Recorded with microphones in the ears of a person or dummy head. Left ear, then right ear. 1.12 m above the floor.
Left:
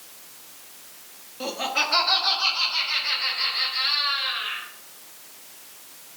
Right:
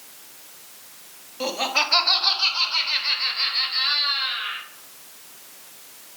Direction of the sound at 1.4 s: 15° right (ahead or behind).